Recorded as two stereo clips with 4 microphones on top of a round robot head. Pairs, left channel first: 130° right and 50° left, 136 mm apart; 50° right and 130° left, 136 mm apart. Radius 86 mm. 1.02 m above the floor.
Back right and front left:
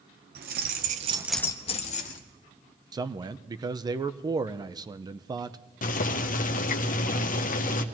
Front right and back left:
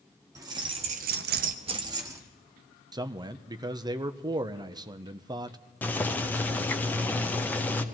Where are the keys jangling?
60° left, 1.3 m; by 2.2 s 160° right, 1.4 m.